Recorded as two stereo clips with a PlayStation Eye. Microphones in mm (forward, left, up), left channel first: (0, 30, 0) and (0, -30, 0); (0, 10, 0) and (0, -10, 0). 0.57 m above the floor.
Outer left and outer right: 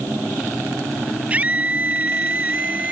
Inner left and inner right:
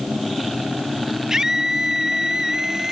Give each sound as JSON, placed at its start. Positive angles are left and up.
{"t": 1.3, "sound": "a scream", "side_deg": -25}